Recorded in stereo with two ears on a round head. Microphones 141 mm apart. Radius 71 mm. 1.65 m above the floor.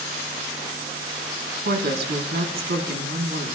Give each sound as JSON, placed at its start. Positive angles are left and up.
{"t": 1.6, "sound": "a woman speaking", "side_deg": -70, "distance_m": 1.3}